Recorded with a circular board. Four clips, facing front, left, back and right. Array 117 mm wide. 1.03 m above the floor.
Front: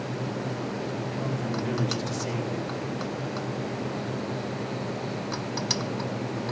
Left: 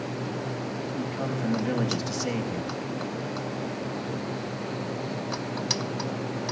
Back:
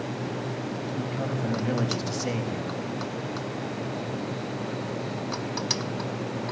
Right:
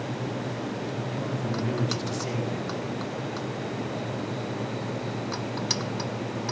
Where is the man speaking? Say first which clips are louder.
Left 1 dB, back 1 dB; 140° left, 5 m.